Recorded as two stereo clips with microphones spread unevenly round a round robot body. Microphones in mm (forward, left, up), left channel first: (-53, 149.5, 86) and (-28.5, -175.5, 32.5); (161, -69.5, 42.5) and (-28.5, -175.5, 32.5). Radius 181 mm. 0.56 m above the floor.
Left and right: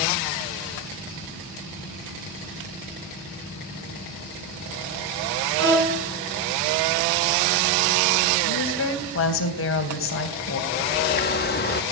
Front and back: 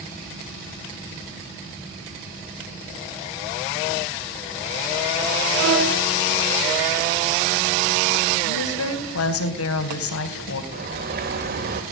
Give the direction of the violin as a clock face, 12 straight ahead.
5 o'clock.